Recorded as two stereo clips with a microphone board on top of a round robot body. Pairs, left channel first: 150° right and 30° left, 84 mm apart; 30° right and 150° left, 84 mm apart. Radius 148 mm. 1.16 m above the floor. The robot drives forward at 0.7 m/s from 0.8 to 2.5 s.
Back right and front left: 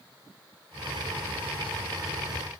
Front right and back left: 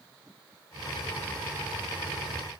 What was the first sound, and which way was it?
Only background noise.